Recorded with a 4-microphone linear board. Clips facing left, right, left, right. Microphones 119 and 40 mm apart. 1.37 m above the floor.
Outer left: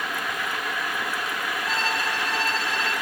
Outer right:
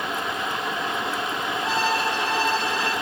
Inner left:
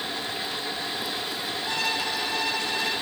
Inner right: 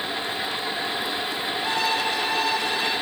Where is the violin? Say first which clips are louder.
Outer right 5 dB, inner right 4 dB; 80° right, 9 m.